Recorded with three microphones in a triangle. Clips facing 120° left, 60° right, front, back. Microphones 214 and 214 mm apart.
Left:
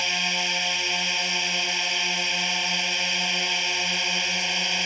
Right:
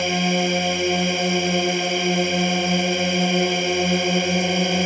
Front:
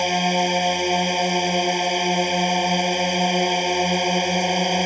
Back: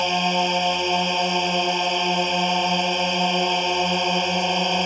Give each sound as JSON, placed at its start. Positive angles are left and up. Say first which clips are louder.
{"t": 0.0, "sound": "a drone", "louder": "right 14 dB, front 2 dB", "azimuth_deg": -75}